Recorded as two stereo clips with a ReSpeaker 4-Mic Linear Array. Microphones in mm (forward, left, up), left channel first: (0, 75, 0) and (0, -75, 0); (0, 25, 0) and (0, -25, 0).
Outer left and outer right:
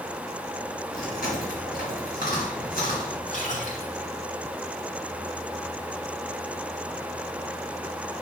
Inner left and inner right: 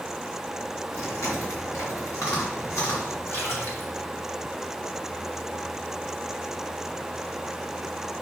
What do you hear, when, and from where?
0.9 s chewing: 75° left (ahead or behind), 3 m
3.3 s a splash: 55° left (ahead or behind), 2 m